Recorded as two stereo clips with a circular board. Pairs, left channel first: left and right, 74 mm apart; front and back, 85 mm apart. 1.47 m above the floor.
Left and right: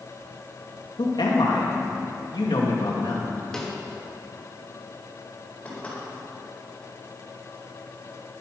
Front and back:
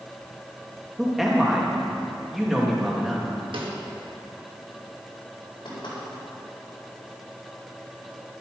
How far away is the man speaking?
About 2.5 m.